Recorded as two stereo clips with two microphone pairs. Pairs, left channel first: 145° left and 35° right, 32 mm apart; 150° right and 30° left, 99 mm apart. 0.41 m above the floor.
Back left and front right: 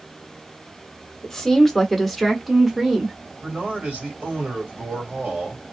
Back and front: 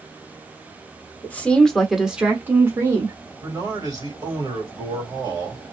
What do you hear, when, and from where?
1.2 s a woman speaking: 175° right, 1.0 m; by 3.2 s 35° left, 1.1 m
3.4 s a man speaking: 10° right, 2 m